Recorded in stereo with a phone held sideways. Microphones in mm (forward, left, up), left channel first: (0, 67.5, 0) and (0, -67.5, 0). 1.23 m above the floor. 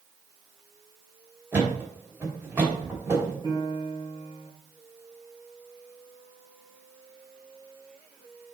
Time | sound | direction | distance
1.5 | a thud | 15° right (ahead or behind) | 3 m
3.4 | a piano | 30° left (ahead or behind) | 3 m